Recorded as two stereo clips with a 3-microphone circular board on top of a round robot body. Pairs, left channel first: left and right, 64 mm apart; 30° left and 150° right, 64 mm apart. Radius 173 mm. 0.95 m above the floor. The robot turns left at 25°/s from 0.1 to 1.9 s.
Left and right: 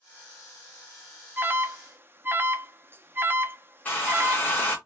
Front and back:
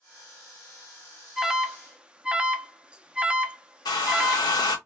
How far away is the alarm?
About 0.6 m.